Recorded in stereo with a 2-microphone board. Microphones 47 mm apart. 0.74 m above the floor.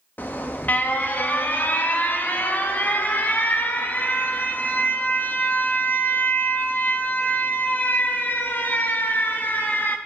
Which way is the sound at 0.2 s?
40° left (ahead or behind).